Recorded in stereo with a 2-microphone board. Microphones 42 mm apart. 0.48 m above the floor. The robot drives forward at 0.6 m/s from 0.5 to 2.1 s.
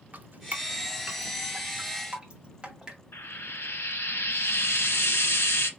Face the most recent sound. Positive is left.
turn(degrees=70)  # may be behind; listen again after turning